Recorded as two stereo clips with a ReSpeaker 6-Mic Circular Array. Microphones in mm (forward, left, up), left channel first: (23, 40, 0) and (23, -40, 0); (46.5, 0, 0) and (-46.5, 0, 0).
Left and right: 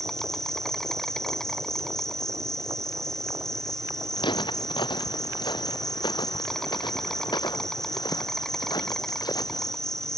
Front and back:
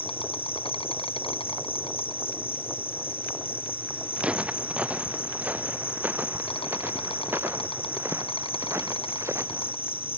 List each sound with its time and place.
0.0 s an insect: 5° left
4.2 s footsteps: 100° left; by 9.7 s 120° left